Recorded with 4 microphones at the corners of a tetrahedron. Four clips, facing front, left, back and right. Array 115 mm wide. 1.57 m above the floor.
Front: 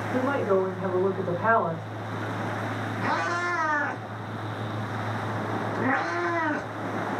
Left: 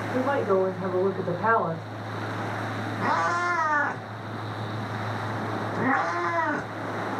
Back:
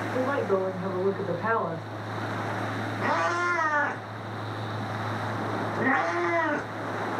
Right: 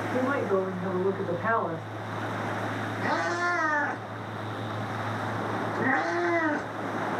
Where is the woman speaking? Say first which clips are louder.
Left 3 dB, front 2 dB; 55° left, 1.8 m.